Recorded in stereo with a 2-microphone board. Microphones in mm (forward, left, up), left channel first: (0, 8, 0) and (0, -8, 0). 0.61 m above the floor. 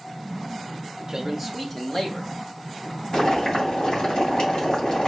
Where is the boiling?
65° left (ahead or behind), 2.5 m.